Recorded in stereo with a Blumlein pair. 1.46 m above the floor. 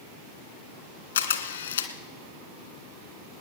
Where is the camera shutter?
65° left, 1.4 m.